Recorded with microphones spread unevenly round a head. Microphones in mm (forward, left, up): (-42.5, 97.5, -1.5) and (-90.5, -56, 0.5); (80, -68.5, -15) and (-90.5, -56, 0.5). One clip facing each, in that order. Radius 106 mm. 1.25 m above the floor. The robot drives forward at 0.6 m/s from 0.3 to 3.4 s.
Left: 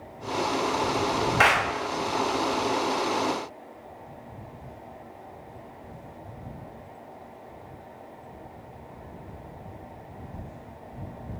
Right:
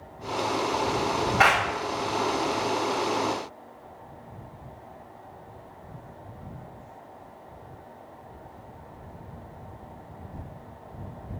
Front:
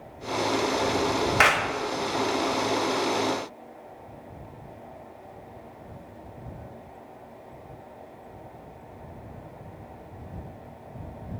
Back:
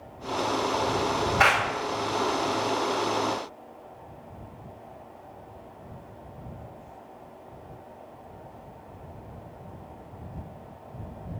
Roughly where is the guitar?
I don't hear a guitar.